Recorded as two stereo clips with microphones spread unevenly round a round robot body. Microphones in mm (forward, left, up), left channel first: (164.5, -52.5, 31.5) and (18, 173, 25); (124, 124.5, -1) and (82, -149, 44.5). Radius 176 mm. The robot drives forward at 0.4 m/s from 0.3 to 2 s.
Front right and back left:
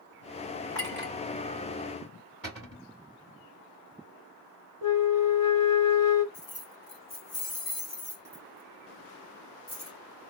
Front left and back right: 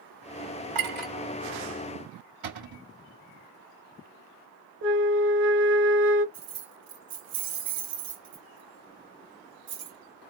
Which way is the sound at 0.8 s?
135° right.